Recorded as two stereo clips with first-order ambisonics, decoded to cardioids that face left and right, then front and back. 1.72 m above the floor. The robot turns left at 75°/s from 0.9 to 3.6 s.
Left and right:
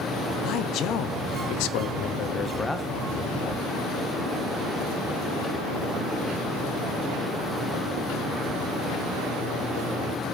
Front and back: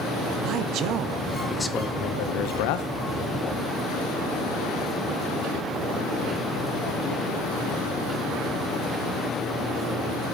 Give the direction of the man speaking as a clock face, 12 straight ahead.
7 o'clock.